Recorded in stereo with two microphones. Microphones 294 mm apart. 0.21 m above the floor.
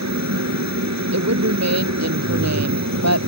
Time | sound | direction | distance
0.0 | a helicopter | 65° right (ahead or behind) | ?
1.1 | a woman speaking | 65° right (ahead or behind) | ?